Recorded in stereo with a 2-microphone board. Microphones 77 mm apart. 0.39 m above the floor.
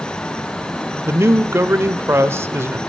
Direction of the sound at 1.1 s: 35° right (ahead or behind).